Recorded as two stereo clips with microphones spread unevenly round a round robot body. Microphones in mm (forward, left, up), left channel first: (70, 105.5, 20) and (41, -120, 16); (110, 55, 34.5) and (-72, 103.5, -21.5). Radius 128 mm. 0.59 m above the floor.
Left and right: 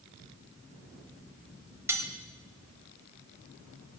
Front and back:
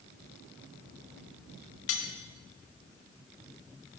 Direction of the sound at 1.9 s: 20° right.